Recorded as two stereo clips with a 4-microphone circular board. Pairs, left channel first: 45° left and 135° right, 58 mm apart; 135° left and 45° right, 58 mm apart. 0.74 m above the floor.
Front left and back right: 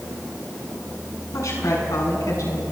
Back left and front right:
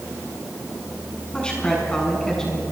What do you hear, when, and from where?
1.3 s a woman speaking: 60° left, 7 m; by 2.6 s 55° left, 6.5 m